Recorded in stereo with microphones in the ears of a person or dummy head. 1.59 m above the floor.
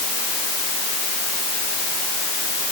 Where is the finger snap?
No finger snap in this recording.